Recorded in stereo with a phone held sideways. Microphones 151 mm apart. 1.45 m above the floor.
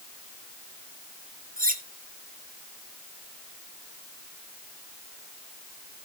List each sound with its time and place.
1.6 s cutlery clinking: 60° right (ahead or behind), 1.9 m